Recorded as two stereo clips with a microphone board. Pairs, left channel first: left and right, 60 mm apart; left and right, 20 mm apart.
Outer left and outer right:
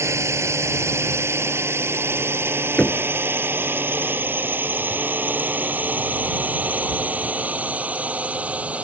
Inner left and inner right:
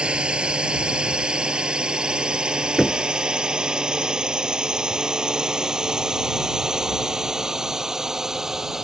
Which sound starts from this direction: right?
A drone, at 0.0 s.